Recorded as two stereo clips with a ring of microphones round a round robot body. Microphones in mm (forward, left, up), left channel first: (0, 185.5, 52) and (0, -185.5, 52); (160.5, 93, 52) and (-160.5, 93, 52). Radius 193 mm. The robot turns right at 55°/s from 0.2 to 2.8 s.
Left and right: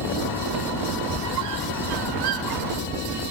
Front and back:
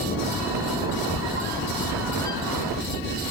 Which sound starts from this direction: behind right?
A squeak, at 1.1 s.